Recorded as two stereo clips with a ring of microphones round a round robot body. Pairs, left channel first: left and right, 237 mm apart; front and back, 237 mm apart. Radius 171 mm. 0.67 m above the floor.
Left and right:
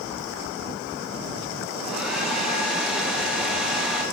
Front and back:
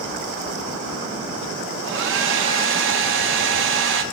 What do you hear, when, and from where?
1.8 s a hair dryer: 175° right, 0.7 m